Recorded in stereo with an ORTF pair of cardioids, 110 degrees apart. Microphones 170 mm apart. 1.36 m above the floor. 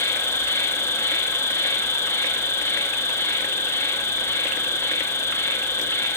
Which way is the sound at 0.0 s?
15° left.